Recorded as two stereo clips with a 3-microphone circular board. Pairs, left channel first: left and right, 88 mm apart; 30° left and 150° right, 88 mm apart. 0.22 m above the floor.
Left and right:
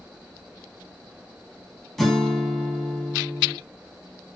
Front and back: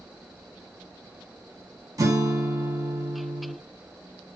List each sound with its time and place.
2.0 s a guitar: straight behind, 0.7 m